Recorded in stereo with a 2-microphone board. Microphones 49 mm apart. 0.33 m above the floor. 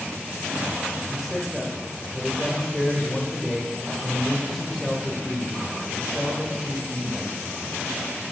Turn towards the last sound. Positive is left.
turn(degrees=5)  # may be behind; listen again after turning